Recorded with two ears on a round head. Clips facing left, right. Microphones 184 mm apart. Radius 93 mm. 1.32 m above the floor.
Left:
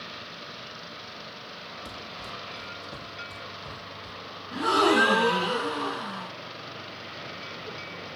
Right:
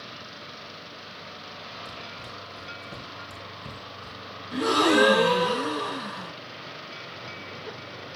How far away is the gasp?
About 4.5 m.